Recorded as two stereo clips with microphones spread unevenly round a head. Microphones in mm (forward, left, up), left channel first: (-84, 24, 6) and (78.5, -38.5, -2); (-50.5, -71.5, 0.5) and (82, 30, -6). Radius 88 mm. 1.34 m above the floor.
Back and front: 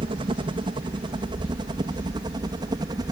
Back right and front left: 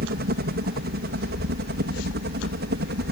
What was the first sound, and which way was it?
A helicopter, 35° left.